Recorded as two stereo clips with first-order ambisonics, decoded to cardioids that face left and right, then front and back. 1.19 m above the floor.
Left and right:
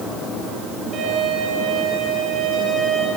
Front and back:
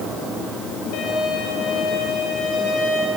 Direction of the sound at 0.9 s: 35° right.